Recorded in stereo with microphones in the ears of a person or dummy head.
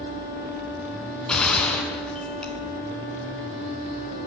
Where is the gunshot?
5° left (ahead or behind), 4 m.